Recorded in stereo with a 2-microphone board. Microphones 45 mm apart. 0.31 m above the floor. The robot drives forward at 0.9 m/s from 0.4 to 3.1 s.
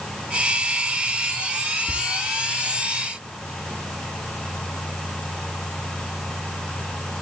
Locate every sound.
1.9 s whispering: 5° right (ahead or behind), 2 m